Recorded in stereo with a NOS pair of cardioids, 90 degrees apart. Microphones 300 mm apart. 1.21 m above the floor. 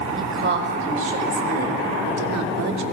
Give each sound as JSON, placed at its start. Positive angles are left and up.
{"t": 0.2, "sound": "a woman speaking", "azimuth_deg": -45, "distance_m": 5.0}